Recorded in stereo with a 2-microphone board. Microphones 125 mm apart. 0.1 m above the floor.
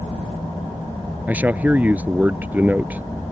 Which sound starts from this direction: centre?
A man speaking, at 1.3 s.